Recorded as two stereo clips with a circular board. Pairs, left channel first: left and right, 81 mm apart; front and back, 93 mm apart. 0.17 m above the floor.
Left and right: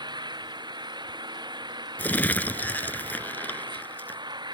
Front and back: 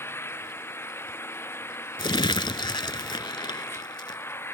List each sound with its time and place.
0.0 s an engine running: 65° right
2.0 s crumpling: 20° left